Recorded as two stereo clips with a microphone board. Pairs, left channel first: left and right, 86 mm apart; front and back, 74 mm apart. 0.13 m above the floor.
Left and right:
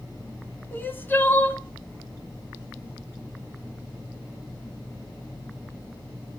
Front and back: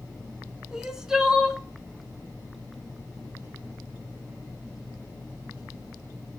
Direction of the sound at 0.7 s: 110° left.